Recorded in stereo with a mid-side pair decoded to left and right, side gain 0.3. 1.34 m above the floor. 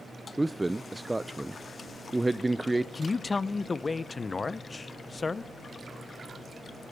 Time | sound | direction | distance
0.4 | a man speaking | 15° right | 0.6 m
3.0 | a man speaking | 45° left | 0.8 m